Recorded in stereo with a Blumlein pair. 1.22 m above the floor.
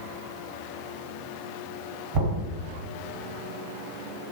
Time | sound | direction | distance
2.1 | knocking | 30° right | 1.5 m